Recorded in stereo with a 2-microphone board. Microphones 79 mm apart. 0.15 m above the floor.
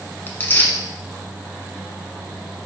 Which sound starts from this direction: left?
Tearing paper, at 0.3 s.